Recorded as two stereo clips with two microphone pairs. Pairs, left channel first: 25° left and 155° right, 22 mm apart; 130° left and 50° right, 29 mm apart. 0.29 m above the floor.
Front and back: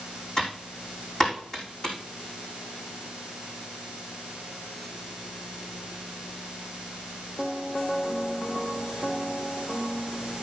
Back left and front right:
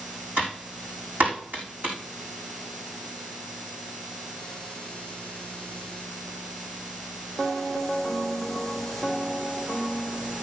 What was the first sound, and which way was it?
Typing on a keyboard, 40° right.